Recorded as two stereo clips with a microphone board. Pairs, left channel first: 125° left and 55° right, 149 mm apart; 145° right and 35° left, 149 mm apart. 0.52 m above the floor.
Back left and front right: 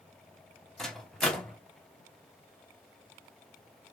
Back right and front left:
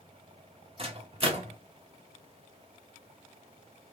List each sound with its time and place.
0.8 s a microwave: 40° left, 0.9 m